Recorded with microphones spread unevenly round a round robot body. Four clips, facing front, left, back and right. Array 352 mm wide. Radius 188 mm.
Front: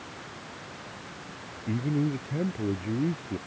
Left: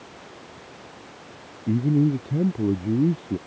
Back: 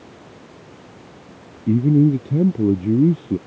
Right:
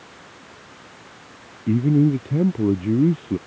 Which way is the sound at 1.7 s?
170° right.